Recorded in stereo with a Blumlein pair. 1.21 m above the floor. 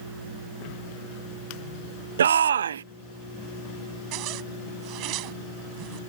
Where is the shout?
65° right.